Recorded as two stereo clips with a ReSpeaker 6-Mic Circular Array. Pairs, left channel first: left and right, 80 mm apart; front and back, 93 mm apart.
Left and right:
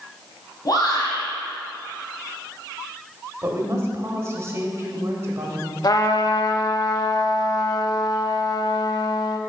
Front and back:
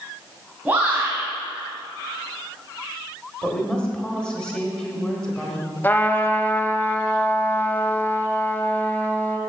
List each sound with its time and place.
0.7 s a shout: 110° left, 2 m
3.4 s a woman speaking: 75° right, 1.3 m
5.8 s a trumpet: 65° left, 0.5 m